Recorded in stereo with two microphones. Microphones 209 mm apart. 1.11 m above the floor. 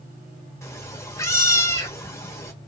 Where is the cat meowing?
15° left (ahead or behind), 1.0 m.